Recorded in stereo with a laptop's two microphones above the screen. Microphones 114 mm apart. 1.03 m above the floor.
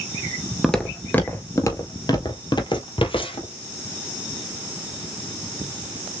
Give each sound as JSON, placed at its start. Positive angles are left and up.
{"t": 0.6, "sound": "footsteps", "side_deg": 5, "distance_m": 1.1}